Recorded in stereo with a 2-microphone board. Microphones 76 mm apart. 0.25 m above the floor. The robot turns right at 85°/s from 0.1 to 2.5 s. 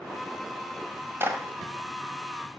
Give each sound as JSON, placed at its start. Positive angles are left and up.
{"t": 1.2, "sound": "a clap", "side_deg": -30, "distance_m": 1.3}